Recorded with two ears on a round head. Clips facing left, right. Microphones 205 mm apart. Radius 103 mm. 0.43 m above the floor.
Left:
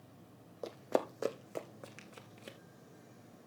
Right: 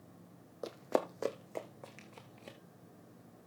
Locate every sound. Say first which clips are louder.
0.6 s running footsteps: even; 5° right (ahead or behind), 1.0 m; by 2.6 s 20° left (ahead or behind), 1.8 m